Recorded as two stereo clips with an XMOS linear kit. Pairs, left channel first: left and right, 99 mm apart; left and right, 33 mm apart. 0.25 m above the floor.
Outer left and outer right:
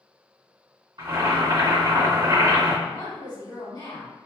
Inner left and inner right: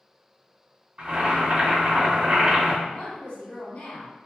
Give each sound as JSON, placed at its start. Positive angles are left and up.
{"t": 1.0, "sound": "boiling", "side_deg": -50, "distance_m": 2.0}
{"t": 2.9, "sound": "a woman speaking", "side_deg": 35, "distance_m": 1.5}